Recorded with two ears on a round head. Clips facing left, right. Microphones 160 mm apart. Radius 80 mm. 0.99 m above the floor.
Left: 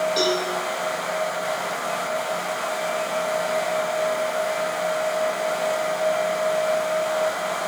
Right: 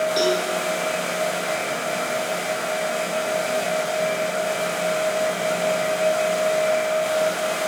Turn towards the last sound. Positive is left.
turn(degrees=-10)  # may be behind; listen again after turning